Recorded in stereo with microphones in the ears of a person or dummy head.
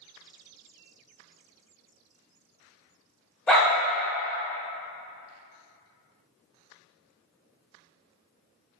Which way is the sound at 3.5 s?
Centre (ahead or behind).